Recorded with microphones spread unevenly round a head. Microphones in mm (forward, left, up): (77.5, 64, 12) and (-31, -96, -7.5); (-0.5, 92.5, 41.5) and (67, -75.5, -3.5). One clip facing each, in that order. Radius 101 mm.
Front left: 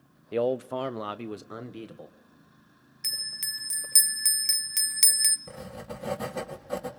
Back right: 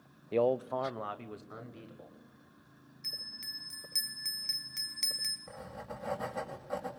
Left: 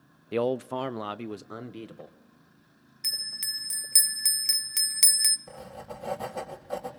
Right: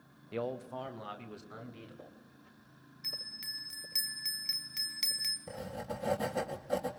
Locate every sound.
0.3 s a man speaking: 140° left, 0.5 m; by 2.1 s 90° left, 1.8 m
3.0 s a bell: 90° left, 0.8 m
5.5 s writing: 10° left, 2.5 m